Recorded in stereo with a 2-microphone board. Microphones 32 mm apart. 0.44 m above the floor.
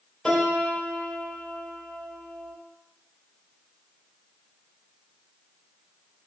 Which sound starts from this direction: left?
A piano, at 0.2 s.